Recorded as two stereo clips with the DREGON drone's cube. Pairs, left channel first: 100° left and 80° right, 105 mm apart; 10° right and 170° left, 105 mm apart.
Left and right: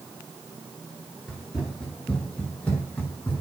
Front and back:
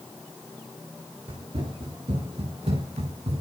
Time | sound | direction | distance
1.3 | running footsteps | 170° right | 7 m